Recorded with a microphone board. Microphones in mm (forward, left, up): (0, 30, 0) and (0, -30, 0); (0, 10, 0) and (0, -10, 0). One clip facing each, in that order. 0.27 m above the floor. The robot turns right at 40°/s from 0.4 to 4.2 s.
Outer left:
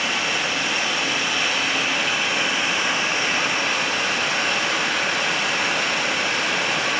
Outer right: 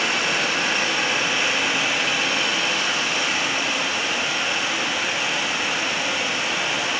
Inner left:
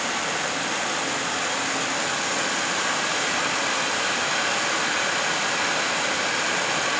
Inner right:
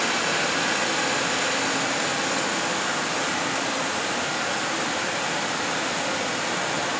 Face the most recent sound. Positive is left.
turn(degrees=80)